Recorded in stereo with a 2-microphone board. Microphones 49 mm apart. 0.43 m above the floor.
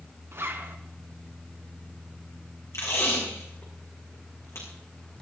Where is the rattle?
No rattle in this recording.